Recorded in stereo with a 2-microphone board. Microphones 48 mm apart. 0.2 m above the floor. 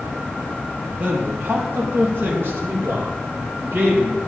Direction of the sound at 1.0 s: 40° right (ahead or behind).